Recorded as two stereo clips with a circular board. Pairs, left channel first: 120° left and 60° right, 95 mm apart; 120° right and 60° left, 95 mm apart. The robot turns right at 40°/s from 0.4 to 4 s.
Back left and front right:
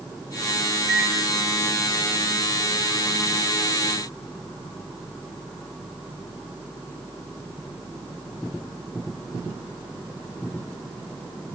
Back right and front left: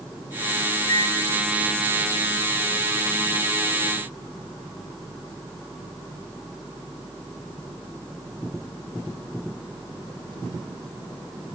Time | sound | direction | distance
0.9 | a microwave | 130° right | 0.8 m